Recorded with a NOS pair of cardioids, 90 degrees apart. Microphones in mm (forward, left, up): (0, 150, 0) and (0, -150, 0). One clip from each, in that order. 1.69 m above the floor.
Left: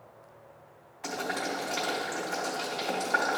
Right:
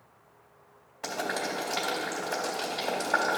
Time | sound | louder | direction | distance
1.0 | boiling | right 1 dB | 55° right | 3 m